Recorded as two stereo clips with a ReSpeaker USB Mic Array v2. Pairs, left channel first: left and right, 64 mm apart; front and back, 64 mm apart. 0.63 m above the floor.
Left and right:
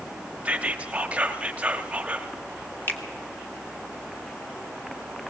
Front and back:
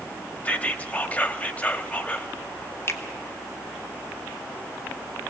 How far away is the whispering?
About 1.3 m.